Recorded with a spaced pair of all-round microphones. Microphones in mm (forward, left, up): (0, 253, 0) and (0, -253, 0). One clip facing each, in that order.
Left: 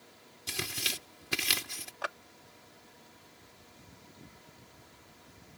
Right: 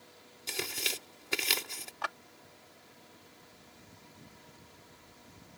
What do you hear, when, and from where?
0.5 s tearing paper: 35° left (ahead or behind)
2.0 s a clap: 20° right (ahead or behind)